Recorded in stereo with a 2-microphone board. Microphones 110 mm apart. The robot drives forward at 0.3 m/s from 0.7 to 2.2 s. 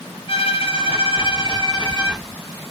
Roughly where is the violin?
Left.